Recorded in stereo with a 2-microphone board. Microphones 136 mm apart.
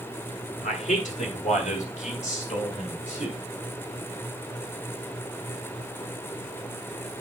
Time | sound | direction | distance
0.6 | a man speaking | 60° left (ahead or behind) | 1.4 m